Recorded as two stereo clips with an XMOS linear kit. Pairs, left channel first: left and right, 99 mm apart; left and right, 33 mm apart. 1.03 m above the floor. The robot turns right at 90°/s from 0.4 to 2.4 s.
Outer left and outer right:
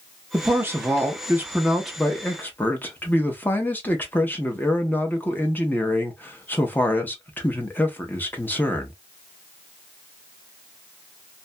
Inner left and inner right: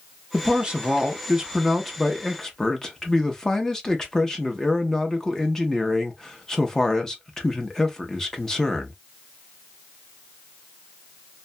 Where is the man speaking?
15° right (ahead or behind), 0.7 m; by 8.9 s 15° left (ahead or behind), 0.7 m.